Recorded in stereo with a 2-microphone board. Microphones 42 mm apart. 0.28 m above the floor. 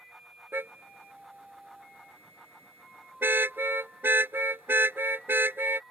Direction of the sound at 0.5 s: 75° right (ahead or behind).